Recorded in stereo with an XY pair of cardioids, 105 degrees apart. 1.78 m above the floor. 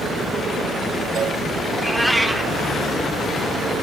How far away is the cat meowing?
About 3 m.